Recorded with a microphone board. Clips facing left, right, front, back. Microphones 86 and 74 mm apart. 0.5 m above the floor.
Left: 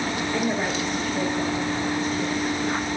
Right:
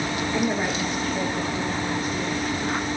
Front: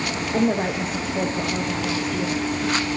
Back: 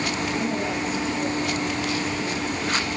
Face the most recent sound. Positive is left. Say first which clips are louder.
# right 1 dB, front 4 dB
turn(degrees=0)